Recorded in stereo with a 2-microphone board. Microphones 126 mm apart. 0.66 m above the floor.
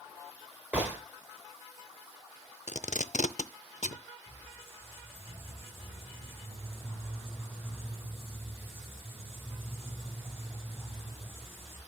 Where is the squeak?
45° right (ahead or behind), 4.5 m.